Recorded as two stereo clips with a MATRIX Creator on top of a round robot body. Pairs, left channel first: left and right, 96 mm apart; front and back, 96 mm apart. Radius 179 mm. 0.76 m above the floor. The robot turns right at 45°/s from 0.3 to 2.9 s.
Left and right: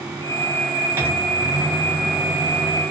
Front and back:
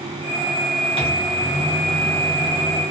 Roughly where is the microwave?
Ahead right.